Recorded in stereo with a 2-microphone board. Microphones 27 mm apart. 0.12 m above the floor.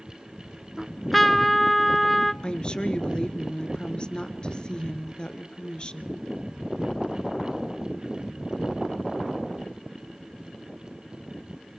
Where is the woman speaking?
35° left (ahead or behind), 1.6 m.